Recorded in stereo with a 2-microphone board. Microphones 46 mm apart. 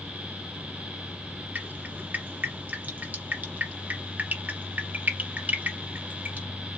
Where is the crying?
I don't hear crying.